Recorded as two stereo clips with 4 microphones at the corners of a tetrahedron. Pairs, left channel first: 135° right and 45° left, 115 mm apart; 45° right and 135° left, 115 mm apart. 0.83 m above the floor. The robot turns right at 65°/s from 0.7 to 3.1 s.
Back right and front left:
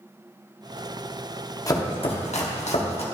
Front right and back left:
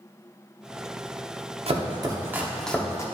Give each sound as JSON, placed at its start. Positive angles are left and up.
{"t": 1.7, "sound": "chopping", "azimuth_deg": 165, "distance_m": 1.0}